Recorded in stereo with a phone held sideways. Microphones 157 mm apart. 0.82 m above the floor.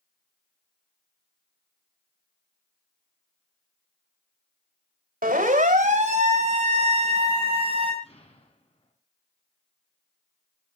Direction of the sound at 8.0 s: 40° left (ahead or behind).